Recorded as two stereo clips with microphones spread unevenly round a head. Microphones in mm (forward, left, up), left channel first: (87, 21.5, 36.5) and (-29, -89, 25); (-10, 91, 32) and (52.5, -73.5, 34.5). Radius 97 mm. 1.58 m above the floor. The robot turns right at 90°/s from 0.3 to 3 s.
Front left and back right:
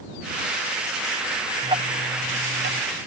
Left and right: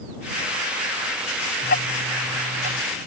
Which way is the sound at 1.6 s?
145° left.